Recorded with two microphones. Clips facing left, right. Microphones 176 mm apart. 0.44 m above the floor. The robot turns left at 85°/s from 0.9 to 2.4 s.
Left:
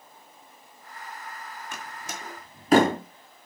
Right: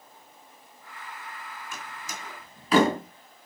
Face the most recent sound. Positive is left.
turn(degrees=45)  # may be behind; listen again after turning